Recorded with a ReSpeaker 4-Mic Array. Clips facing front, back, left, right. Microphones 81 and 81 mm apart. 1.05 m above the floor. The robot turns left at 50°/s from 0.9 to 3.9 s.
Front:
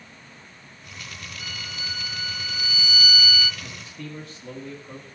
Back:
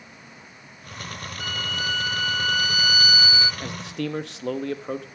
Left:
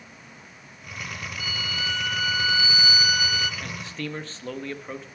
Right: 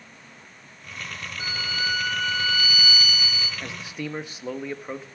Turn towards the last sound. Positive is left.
turn(degrees=-170)